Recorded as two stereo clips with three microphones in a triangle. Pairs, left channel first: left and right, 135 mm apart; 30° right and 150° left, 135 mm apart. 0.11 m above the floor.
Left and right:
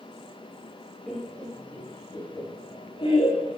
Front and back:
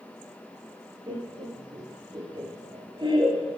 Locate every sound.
1.1 s laughter: 175° left, 1.4 m; by 3.5 s 105° left, 1.7 m